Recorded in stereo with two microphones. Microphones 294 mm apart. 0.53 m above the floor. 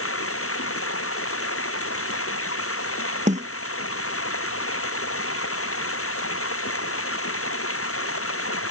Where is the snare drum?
25° right (ahead or behind).